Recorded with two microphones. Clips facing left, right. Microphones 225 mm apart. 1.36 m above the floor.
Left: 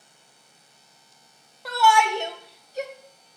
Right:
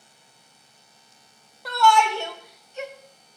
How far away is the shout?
About 1.0 m.